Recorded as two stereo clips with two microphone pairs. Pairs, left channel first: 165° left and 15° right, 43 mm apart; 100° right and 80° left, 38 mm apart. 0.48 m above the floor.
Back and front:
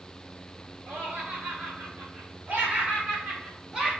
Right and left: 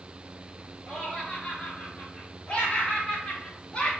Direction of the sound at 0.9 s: 35° right.